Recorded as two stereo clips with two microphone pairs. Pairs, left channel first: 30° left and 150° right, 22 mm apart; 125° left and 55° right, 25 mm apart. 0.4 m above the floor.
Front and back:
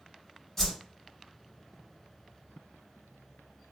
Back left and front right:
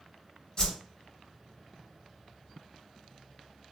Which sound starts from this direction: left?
A whoosh, at 0.6 s.